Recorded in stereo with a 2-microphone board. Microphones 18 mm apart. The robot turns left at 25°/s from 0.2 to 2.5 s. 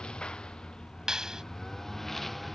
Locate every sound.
0.0 s a lawn mower: 65° left; by 2.5 s 10° left
1.1 s a clap: 35° right (ahead or behind); by 1.4 s 40° right (ahead or behind)